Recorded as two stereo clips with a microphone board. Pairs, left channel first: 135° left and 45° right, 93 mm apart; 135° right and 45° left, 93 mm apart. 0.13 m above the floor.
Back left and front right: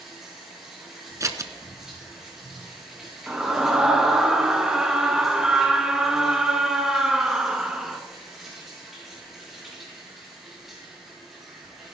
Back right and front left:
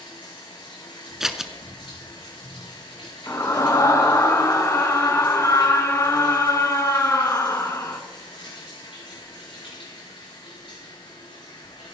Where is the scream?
125° right, 1.2 m.